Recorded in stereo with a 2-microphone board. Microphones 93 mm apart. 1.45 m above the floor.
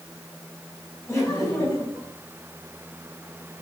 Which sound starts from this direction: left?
Laughter, at 1.1 s.